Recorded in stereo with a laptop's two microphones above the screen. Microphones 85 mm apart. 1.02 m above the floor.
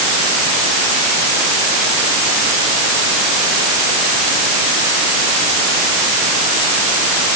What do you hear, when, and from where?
Only background noise.